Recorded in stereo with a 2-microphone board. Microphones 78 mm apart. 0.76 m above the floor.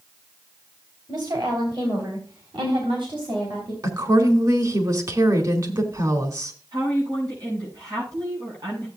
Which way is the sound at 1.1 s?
60° right (ahead or behind).